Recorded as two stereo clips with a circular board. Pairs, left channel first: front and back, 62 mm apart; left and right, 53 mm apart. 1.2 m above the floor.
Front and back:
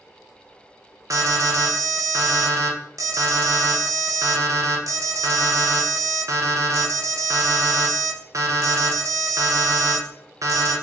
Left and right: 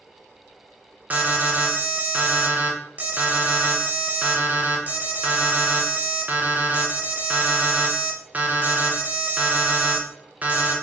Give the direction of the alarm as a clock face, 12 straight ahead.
5 o'clock.